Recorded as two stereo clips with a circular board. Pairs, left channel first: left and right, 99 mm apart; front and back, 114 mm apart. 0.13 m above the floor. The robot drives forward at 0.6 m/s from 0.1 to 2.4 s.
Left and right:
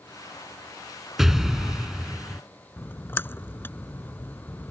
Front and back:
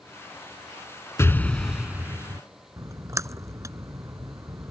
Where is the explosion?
10° right; by 2.4 s 175° right.